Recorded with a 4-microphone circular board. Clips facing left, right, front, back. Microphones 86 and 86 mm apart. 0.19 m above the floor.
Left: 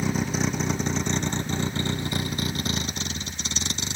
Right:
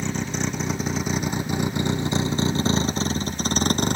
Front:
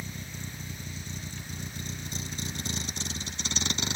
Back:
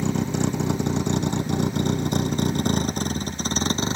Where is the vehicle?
175° left; by 4.0 s 125° right.